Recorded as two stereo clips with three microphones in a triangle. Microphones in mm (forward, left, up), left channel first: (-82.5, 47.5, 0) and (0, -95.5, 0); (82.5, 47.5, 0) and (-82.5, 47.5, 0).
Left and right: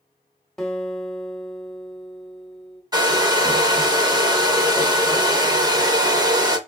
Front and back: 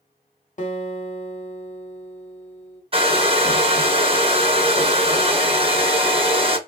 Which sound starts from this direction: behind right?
A hair dryer, at 2.9 s.